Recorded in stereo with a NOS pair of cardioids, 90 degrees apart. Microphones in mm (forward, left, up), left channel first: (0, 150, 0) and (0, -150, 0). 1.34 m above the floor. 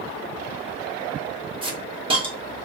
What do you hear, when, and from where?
1.6 s a hiss: 20° right, 1.7 m